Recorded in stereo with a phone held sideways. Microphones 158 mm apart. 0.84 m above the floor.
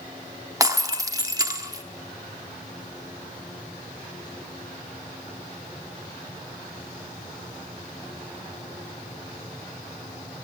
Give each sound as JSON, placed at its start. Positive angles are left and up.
{"t": 0.6, "sound": "breaking glass", "side_deg": -20, "distance_m": 0.7}